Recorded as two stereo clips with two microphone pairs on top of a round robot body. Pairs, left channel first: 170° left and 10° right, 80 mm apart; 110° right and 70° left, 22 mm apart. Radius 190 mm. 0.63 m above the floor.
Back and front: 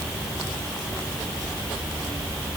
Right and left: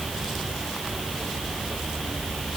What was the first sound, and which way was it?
Only background noise.